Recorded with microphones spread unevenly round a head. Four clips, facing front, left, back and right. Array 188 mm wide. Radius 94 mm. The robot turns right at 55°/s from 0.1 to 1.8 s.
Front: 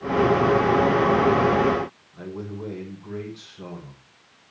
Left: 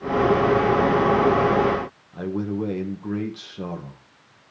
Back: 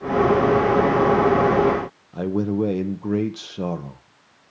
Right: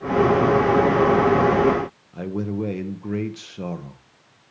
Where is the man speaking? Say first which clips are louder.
Left 1 dB, back 16 dB; 175° right, 1.6 m.